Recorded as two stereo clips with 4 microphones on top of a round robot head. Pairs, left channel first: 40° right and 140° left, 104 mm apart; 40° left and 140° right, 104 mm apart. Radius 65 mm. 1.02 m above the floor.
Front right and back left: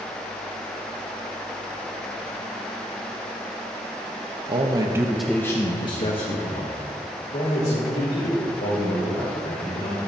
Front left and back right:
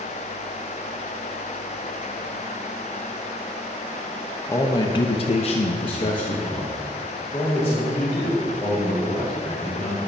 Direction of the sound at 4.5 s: 105° left.